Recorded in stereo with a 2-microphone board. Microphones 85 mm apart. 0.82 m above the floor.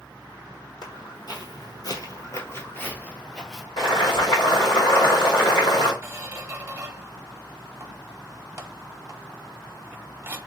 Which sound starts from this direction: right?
A squeak, at 6.0 s.